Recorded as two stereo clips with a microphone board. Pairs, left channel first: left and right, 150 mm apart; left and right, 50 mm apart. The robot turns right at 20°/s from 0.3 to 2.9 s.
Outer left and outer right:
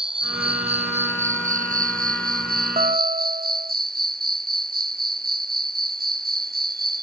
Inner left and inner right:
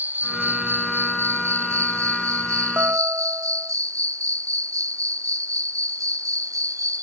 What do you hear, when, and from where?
0.0 s an insect: 145° right; by 7.0 s 95° right
2.8 s a guitar: 45° right (ahead or behind)